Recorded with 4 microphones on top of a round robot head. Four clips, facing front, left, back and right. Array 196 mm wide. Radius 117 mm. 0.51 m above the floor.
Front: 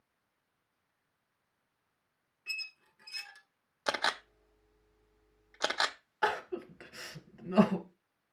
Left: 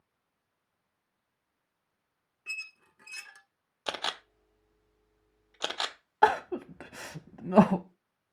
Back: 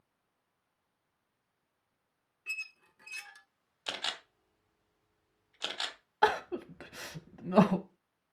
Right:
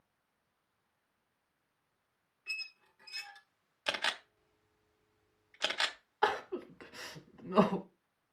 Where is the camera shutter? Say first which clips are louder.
Left 2 dB, front 9 dB; 35° left, 1.1 m.